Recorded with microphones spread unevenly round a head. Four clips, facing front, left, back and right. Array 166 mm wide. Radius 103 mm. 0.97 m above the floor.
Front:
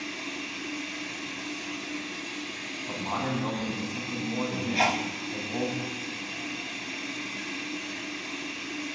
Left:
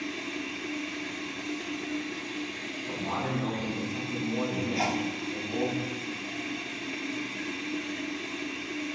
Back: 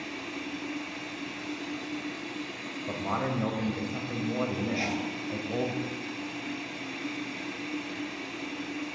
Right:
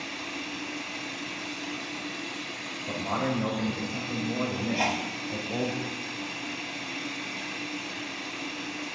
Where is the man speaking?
140° right, 5 m.